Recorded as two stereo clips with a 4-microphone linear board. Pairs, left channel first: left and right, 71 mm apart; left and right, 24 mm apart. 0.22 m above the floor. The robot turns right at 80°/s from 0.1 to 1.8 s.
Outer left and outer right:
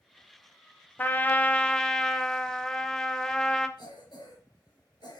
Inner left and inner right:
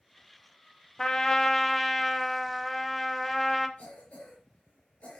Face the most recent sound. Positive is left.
turn(degrees=65)  # may be behind; listen again after turning